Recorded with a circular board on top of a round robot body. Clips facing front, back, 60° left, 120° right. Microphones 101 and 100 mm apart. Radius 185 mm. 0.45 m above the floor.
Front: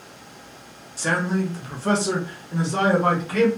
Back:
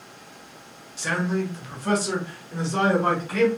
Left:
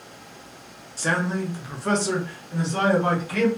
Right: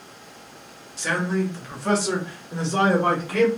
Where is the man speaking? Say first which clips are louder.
Front 2 dB, right 1 dB; 30° left, 1.0 m; by 3.5 s 85° right, 1.6 m.